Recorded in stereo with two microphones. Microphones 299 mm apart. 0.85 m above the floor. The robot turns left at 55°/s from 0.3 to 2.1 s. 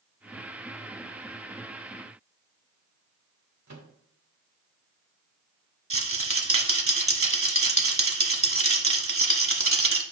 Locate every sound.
3.7 s a microwave: 60° right (ahead or behind), 1.1 m
5.9 s a rattle: 45° right (ahead or behind), 1.0 m